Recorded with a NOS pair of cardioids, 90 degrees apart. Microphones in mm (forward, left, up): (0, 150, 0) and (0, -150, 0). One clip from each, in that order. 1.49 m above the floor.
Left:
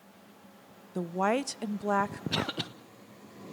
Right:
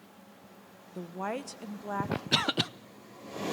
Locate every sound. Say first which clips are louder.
0.9 s a woman speaking: left 7 dB; 40° left, 0.7 m
2.3 s a cough: right 8 dB; 30° right, 0.7 m